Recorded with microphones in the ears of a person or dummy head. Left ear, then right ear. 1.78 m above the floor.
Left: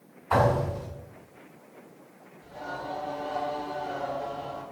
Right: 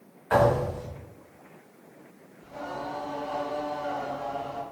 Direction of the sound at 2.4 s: 30° right (ahead or behind).